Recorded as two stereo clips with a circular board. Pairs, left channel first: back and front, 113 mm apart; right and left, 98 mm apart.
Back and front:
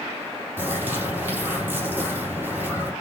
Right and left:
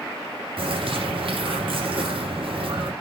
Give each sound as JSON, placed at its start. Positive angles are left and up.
{"t": 0.6, "sound": "a bird", "azimuth_deg": 70, "distance_m": 4.5}